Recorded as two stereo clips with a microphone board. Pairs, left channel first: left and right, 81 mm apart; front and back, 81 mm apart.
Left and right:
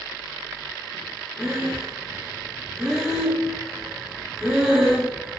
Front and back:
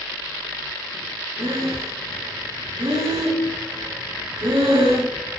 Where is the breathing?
175° right, 5 m.